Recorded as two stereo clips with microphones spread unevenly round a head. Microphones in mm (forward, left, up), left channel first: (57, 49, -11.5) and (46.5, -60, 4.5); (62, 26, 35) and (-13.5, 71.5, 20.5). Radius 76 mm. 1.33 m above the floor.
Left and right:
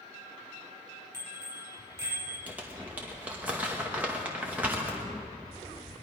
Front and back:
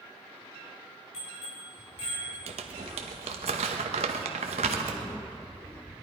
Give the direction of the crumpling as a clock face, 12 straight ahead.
6 o'clock.